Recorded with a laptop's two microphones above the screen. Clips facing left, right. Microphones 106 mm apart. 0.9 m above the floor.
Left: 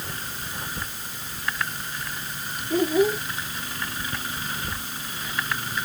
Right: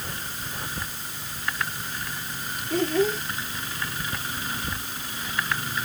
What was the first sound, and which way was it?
A child speaking, 10° left (ahead or behind).